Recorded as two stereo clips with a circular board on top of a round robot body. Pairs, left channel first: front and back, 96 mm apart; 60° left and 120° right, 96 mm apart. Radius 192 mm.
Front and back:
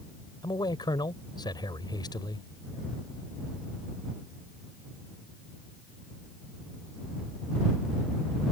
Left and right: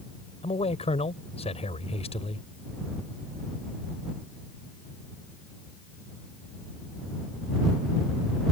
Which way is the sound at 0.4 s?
45° left.